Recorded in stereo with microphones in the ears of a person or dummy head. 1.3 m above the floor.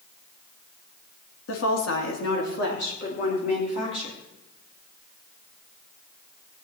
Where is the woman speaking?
80° left, 2.5 m; by 4.2 s 35° left (ahead or behind), 4 m.